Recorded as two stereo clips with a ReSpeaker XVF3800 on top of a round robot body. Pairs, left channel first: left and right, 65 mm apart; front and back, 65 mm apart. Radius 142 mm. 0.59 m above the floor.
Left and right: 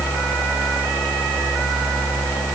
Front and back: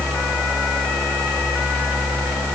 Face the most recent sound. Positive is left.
No sound to turn to.